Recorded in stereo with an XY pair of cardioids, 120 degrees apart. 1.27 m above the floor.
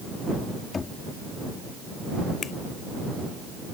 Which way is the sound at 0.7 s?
35° left.